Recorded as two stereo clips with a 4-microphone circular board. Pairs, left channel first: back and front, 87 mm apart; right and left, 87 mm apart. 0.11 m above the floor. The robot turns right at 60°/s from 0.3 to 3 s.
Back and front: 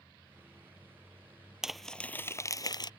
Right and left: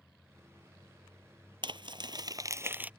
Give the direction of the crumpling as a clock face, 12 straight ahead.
9 o'clock.